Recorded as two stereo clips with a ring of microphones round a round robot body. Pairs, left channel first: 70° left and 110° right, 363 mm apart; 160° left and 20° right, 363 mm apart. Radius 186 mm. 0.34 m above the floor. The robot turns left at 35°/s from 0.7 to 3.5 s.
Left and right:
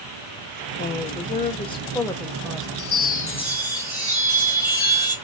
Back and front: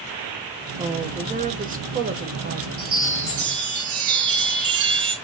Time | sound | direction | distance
0.8 | a woman speaking | 40° left | 1.0 m
2.8 | a chime | 20° left | 1.7 m